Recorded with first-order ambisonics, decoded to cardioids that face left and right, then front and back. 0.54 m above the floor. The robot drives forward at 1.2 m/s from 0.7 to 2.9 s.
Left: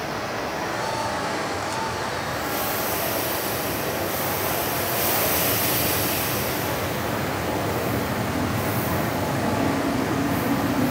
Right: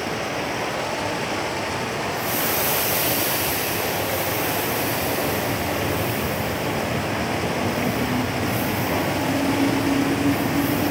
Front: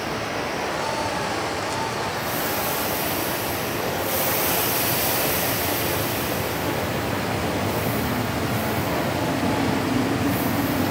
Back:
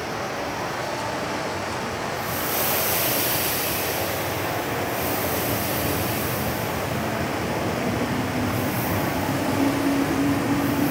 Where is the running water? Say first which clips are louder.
Right 2 dB, front 1 dB; 80° right, 9 m; by 10.9 s 95° right, 9 m.